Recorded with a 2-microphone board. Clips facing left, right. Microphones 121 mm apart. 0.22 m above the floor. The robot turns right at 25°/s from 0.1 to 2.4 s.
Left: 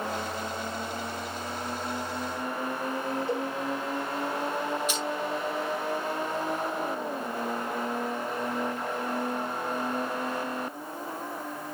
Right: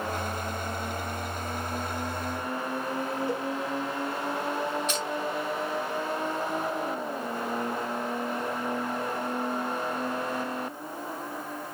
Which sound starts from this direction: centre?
Crushing, at 4.9 s.